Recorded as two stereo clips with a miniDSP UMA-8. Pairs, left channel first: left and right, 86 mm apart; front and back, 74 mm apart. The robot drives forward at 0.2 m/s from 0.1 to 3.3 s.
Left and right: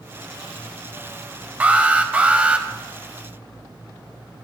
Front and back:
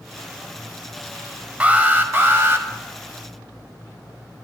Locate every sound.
1.6 s an alarm: 135° right, 0.6 m; by 2.7 s 155° right, 0.7 m